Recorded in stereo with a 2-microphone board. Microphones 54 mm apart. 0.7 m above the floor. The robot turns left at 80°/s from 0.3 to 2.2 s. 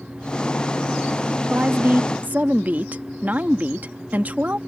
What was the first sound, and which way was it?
A woman speaking, 60° right.